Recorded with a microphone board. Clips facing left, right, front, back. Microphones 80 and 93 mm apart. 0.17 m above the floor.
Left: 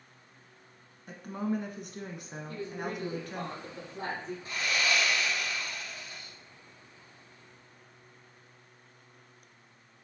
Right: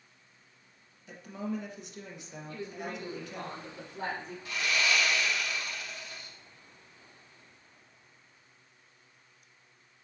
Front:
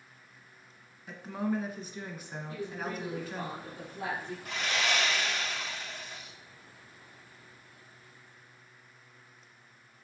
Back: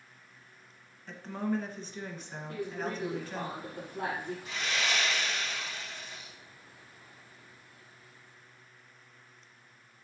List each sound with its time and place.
1.1 s a woman speaking: 80° left, 1.7 m
2.5 s a woman speaking: 140° left, 4.5 m
4.5 s sawing: 30° left, 3.5 m